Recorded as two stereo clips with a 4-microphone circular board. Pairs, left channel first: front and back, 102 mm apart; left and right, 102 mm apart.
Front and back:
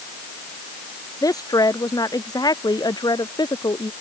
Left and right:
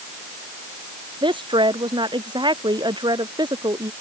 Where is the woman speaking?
55° right; by 3.9 s 45° right.